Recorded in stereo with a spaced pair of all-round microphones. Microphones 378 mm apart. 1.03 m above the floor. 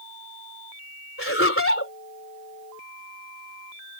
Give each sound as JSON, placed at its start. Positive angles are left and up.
{"t": 1.2, "sound": "laughter", "side_deg": 35}